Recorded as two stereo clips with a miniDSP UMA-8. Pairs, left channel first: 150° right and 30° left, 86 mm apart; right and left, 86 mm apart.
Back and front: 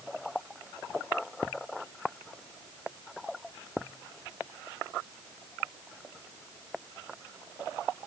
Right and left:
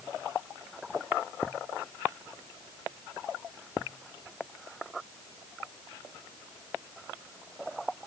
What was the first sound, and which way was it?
Only background noise.